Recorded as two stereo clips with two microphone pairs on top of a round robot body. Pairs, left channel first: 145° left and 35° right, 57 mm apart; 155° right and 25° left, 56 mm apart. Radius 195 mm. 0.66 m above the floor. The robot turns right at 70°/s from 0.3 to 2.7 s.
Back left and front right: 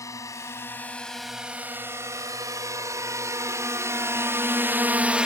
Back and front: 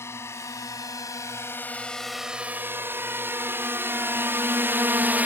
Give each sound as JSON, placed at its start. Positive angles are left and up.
{"t": 0.0, "sound": "a drone", "azimuth_deg": 165}